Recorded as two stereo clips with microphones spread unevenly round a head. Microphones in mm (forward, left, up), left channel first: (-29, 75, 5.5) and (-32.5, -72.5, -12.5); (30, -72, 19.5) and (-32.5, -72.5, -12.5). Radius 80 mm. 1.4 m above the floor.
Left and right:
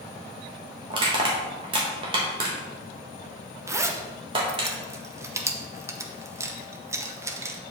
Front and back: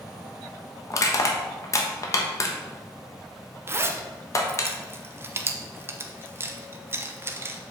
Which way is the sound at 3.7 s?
160° right.